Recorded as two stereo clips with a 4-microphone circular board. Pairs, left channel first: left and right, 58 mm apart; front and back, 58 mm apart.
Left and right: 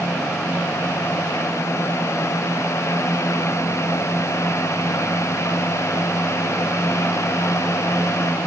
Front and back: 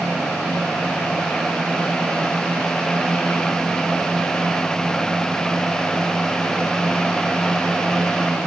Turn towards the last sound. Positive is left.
No sound to turn to.